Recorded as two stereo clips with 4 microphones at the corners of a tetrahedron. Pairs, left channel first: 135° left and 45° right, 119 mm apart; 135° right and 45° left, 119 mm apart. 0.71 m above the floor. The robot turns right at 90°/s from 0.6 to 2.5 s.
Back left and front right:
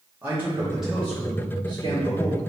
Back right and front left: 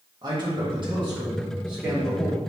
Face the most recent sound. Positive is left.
turn(degrees=-170)